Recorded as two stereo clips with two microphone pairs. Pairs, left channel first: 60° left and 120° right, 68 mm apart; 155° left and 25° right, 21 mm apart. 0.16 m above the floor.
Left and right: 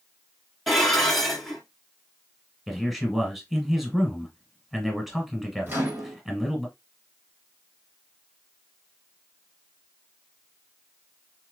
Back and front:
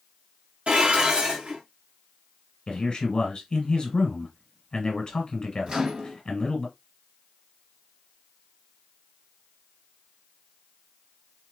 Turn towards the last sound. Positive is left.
turn(degrees=-65)